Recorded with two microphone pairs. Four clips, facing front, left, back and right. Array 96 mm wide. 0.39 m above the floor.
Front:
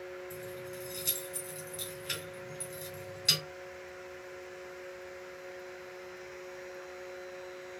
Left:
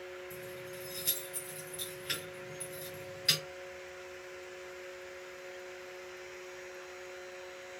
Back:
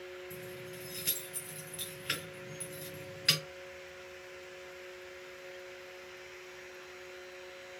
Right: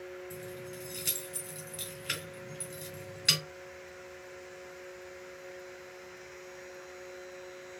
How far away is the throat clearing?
No throat clearing in this recording.